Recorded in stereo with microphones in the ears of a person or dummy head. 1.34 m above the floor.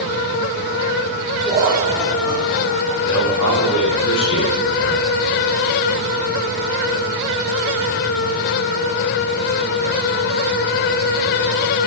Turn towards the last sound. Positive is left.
turn(degrees=80)